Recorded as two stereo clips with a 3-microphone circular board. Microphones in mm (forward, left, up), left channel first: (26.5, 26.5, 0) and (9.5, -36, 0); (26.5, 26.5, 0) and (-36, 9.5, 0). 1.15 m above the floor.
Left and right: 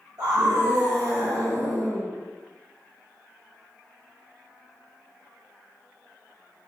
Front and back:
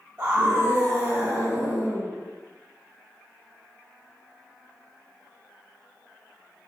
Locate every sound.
0.2 s a scream: 120° right, 1.6 m